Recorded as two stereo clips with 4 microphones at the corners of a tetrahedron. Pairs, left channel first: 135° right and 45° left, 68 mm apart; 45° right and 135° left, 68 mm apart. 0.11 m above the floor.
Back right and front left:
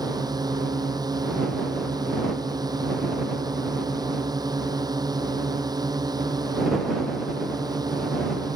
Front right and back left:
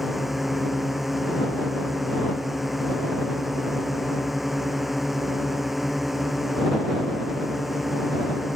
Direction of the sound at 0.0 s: 50° left.